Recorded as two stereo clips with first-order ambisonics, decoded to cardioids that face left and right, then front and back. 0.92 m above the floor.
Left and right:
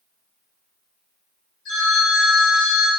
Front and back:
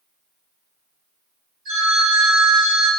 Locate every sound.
1.6 s a phone ringing: 140° left, 1.7 m